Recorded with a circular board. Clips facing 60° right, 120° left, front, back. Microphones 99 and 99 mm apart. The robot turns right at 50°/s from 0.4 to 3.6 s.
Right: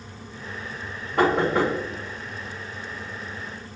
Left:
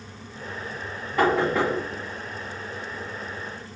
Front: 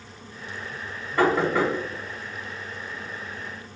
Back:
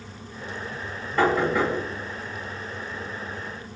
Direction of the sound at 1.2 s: 80° right.